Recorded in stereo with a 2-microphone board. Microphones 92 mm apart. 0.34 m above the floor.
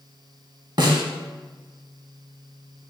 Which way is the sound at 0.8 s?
55° right (ahead or behind).